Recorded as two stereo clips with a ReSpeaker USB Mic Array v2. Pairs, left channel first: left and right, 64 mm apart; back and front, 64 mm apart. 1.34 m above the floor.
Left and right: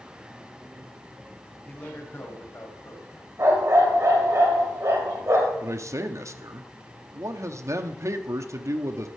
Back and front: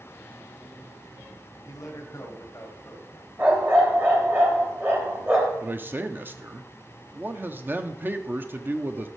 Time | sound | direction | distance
1.6 | a man speaking | 155° left | 1.3 m
3.4 | a dog barking | 55° right | 2 m
5.6 | a man speaking | 55° right | 0.7 m